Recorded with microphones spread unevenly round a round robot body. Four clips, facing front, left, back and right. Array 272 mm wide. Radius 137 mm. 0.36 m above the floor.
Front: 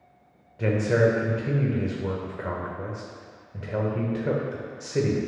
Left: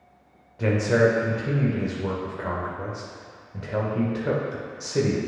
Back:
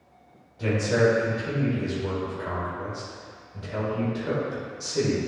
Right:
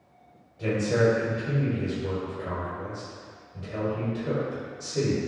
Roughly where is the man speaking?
Ahead left.